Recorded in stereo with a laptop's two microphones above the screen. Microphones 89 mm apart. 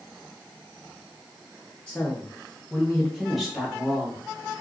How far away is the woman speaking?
About 0.9 m.